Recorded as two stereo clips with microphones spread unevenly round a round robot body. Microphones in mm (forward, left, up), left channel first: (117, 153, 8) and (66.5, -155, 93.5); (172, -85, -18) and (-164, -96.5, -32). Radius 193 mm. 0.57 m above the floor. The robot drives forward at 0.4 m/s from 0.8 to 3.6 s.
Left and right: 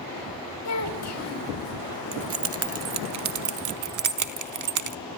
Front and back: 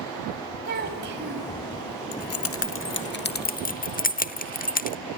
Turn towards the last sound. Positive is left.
turn(degrees=-65)